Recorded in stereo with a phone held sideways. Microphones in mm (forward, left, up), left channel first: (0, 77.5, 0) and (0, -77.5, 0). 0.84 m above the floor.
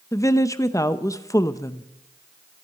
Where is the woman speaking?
20° left (ahead or behind), 0.7 m.